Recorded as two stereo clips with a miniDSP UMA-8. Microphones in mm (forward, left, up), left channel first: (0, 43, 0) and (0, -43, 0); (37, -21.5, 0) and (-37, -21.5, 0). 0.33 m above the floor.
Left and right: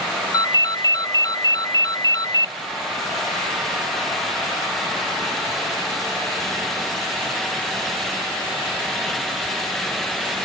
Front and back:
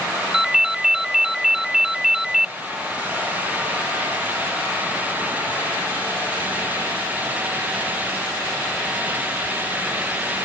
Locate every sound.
0.3 s a ringtone: 100° left